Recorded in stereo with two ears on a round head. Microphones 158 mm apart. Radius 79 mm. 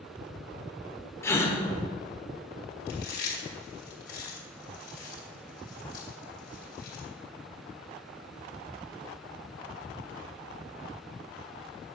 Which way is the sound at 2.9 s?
65° left (ahead or behind).